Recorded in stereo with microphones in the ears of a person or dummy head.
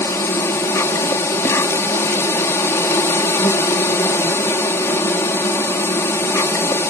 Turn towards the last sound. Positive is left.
turn(degrees=15)  # may be behind; listen again after turning